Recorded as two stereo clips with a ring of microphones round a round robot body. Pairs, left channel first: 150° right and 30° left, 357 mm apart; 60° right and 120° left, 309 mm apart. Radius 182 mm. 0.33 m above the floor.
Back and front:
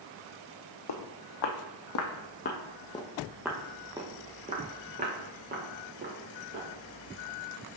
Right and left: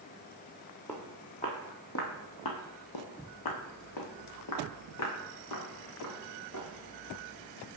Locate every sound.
0.9 s footsteps: 145° right, 1.2 m; by 6.7 s 30° right, 3 m